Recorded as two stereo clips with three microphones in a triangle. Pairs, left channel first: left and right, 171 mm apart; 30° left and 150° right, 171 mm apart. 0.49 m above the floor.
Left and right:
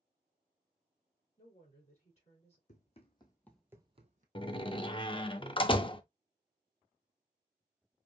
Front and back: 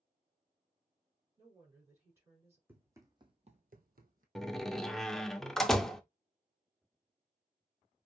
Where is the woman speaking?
135° left, 3 m.